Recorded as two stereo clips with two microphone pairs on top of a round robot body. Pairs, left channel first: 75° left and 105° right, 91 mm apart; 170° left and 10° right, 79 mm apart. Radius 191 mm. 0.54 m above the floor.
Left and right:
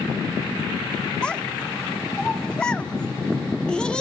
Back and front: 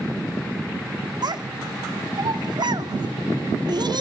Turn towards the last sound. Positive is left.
turn(degrees=0)